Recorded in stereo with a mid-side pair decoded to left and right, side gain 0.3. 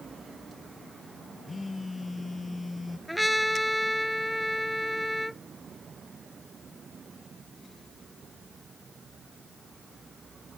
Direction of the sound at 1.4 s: 35° left.